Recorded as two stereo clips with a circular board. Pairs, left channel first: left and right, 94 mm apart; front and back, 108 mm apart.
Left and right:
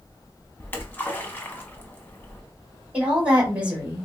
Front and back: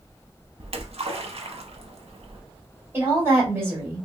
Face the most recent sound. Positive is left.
turn(degrees=-150)